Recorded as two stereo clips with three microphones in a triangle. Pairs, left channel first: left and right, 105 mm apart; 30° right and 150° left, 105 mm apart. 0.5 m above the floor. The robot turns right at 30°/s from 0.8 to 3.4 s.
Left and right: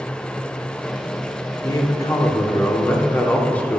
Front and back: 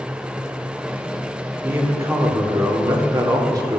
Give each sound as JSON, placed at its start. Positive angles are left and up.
{"t": 1.6, "sound": "a man speaking", "azimuth_deg": 100, "distance_m": 0.8}